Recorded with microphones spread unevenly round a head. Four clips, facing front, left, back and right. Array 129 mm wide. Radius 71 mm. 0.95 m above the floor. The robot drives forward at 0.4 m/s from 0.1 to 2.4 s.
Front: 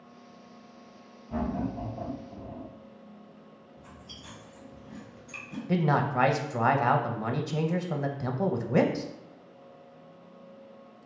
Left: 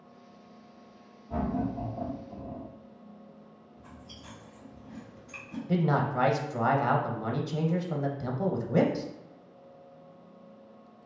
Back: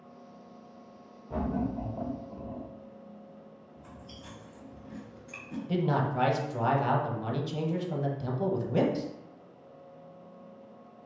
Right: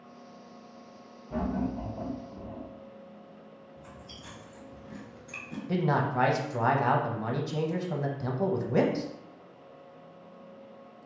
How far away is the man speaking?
About 0.6 m.